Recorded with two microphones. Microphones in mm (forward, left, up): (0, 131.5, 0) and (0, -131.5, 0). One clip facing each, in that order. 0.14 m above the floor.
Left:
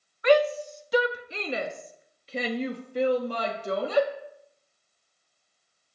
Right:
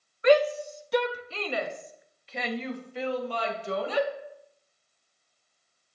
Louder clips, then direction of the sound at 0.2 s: Even; 30° right (ahead or behind).